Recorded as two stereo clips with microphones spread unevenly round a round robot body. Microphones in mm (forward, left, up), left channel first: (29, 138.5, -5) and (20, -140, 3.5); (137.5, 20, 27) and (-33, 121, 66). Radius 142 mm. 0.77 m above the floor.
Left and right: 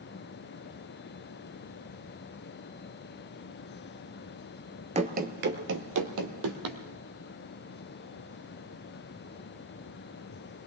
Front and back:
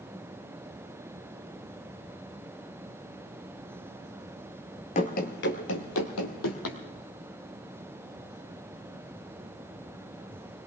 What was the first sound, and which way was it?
Running footsteps, 75° right.